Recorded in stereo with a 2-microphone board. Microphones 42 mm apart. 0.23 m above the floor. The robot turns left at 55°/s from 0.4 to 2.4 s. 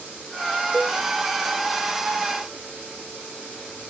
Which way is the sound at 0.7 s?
15° right (ahead or behind).